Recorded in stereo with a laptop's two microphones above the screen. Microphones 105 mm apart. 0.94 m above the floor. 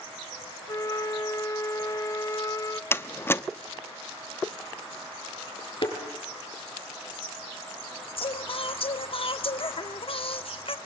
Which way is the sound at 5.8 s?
50° left (ahead or behind).